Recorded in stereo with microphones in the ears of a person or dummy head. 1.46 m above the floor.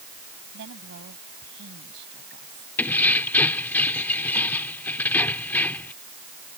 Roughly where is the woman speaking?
Right.